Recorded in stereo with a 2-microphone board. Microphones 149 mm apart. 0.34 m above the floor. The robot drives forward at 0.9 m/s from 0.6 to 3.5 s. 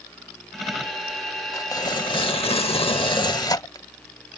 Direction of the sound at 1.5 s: 25° left (ahead or behind).